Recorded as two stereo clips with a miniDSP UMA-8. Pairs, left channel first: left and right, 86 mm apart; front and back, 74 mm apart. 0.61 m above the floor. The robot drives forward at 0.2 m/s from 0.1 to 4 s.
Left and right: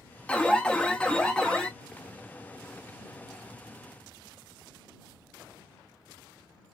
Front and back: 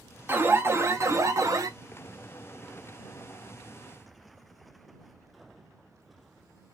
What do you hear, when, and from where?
0.3 s an alarm: 150° left, 0.5 m; by 1.7 s 165° left, 0.7 m